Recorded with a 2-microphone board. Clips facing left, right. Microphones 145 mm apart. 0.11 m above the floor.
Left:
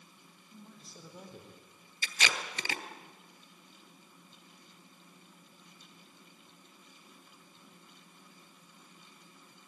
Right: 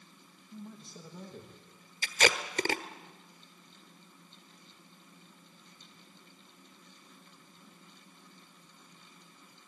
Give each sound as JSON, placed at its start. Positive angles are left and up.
{"t": 0.5, "sound": "a man speaking", "side_deg": 0, "distance_m": 5.5}
{"t": 2.0, "sound": "tape being pulled", "side_deg": -45, "distance_m": 1.4}